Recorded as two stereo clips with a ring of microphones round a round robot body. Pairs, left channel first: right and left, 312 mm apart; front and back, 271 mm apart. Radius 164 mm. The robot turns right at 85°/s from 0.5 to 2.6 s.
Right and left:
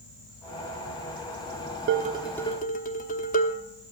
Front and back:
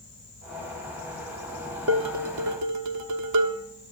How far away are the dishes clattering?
About 1.0 m.